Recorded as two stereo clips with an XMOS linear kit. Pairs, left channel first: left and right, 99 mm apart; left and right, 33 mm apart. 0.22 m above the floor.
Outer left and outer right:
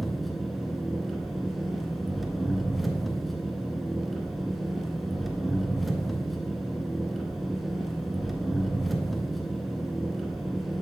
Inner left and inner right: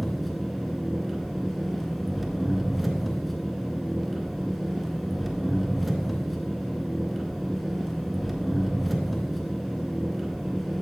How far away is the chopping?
No chopping in this recording.